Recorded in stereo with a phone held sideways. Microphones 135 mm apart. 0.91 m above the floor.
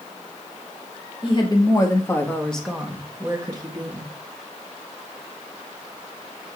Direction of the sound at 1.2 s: 40° left (ahead or behind).